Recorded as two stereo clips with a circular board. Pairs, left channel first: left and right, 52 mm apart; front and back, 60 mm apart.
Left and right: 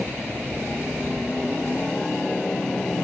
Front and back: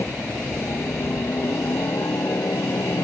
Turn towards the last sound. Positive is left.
turn(degrees=15)